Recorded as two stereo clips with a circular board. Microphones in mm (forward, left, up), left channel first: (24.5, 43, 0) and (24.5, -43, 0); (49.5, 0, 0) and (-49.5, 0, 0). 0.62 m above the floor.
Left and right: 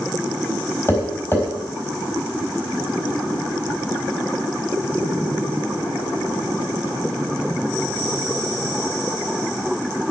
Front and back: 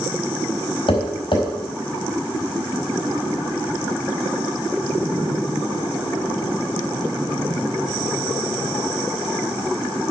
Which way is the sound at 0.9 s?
30° left.